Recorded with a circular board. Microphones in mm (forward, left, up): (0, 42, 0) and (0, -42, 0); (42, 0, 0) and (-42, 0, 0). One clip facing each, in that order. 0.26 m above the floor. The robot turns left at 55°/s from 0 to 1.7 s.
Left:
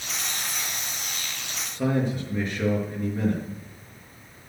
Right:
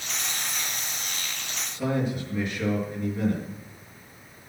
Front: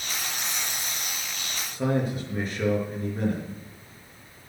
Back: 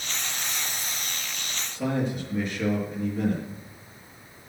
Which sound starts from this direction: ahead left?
A man speaking, at 1.7 s.